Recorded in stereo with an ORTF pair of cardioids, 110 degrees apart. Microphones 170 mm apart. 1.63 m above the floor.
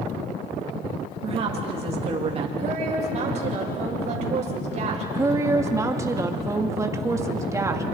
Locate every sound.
1.2 s a woman speaking: 40° right, 3.5 m
2.6 s a woman speaking: 45° right, 6.5 m
5.1 s a woman speaking: 20° right, 2.5 m